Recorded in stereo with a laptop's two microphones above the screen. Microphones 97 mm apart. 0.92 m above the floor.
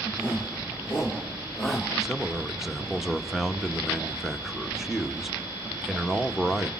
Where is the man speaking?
Centre (ahead or behind), 1.4 m.